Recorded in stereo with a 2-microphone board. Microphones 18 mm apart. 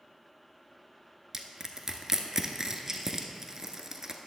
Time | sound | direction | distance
1.3 | crushing | 30° right (ahead or behind) | 0.8 m